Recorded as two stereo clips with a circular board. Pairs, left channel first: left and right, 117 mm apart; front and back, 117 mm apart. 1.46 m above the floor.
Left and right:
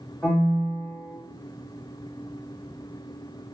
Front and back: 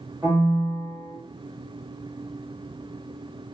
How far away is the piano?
About 1.0 m.